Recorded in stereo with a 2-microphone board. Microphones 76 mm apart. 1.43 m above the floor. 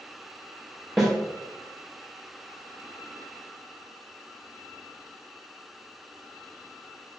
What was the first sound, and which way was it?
A snare drum, 5° right (ahead or behind).